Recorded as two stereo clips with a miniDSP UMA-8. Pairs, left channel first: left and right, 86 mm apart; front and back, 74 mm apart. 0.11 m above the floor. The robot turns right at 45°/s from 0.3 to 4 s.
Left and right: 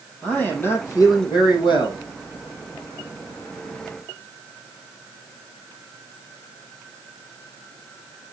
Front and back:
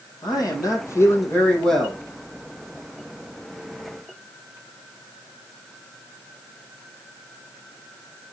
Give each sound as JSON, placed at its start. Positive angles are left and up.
{"t": 0.2, "sound": "a man speaking", "azimuth_deg": 15, "distance_m": 3.5}